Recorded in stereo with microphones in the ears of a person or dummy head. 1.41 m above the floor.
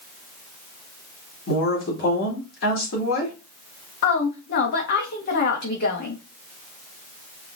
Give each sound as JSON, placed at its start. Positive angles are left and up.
{"t": 1.5, "sound": "a woman speaking", "side_deg": 65, "distance_m": 2.0}
{"t": 4.0, "sound": "a woman speaking", "side_deg": 55, "distance_m": 1.3}